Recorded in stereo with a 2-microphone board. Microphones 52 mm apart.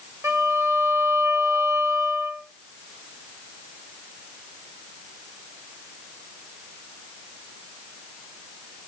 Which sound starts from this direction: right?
A violin, at 0.2 s.